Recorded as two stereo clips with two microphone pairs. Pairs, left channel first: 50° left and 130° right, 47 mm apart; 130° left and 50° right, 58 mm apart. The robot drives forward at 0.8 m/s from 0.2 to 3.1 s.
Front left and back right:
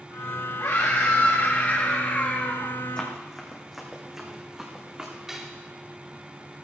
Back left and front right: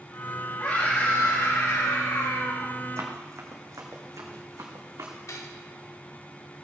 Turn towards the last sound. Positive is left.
turn(degrees=150)